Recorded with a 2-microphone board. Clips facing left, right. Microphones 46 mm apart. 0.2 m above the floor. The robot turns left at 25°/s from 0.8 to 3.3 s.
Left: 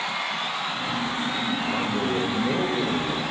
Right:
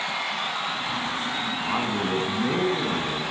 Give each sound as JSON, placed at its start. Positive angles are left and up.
{"t": 1.6, "sound": "a man speaking", "azimuth_deg": -90, "distance_m": 2.0}